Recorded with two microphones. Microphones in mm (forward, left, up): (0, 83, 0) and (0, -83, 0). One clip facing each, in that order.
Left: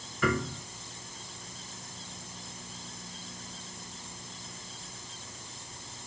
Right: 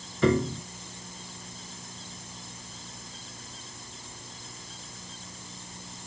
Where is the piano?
30° right (ahead or behind).